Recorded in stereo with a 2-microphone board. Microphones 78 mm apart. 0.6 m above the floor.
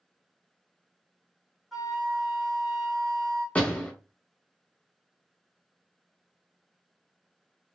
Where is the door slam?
20° left (ahead or behind), 0.8 m.